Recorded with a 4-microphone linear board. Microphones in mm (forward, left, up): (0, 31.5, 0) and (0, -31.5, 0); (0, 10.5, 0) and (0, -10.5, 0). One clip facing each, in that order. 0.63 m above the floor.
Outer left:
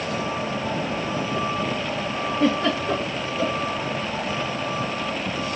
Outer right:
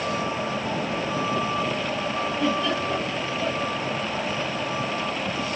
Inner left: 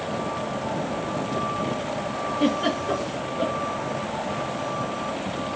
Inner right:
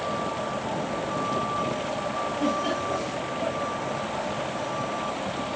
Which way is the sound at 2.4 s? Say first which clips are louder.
Outer left 4 dB, inner left 4 dB; 50° left (ahead or behind).